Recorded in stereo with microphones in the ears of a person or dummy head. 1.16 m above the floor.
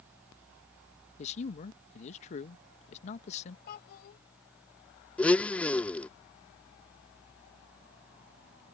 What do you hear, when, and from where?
1.2 s a man speaking: 40° left (ahead or behind)
3.7 s a child speaking: 60° left (ahead or behind)
5.2 s a blender: 5° left (ahead or behind)